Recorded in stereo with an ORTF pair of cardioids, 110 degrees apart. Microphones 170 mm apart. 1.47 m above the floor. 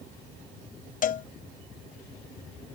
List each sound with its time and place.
1.0 s a cowbell: 55° left